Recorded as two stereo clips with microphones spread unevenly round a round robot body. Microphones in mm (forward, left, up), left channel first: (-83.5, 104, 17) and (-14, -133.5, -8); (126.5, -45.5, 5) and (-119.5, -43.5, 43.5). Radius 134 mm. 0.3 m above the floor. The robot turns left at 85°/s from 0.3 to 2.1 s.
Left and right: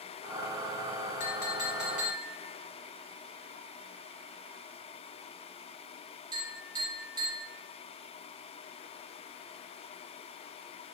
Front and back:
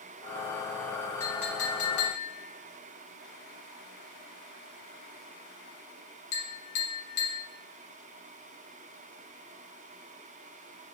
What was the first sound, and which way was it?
A clink, 80° left.